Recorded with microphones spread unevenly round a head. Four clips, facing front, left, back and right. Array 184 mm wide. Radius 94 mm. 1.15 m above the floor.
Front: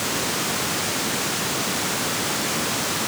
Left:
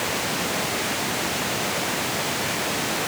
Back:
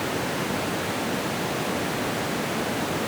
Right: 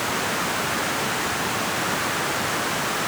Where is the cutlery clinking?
I don't hear cutlery clinking.